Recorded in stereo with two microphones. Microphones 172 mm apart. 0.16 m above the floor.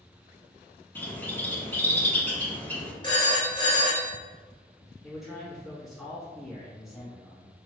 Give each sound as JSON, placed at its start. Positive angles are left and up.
{"t": 0.9, "sound": "a bird", "side_deg": 10, "distance_m": 0.7}
{"t": 3.0, "sound": "a phone ringing", "side_deg": 25, "distance_m": 1.2}
{"t": 5.0, "sound": "a man speaking", "side_deg": 0, "distance_m": 1.6}